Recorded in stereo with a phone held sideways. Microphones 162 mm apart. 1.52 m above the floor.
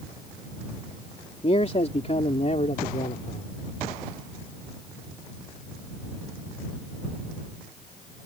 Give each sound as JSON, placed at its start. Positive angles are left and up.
{"t": 1.4, "sound": "a man speaking", "side_deg": 40}